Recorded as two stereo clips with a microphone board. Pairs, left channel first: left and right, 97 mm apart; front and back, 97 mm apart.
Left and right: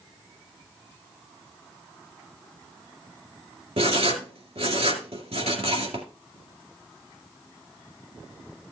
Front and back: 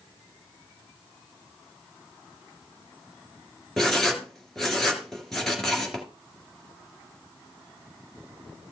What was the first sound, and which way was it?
Writing, 85° right.